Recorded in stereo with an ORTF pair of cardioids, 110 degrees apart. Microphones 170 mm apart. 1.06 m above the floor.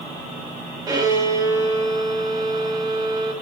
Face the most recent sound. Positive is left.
turn(degrees=-25)